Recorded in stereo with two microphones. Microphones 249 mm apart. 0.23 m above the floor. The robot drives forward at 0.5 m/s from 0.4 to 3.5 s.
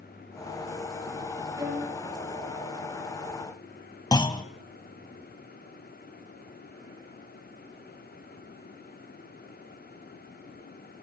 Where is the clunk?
15° left (ahead or behind), 1.0 m.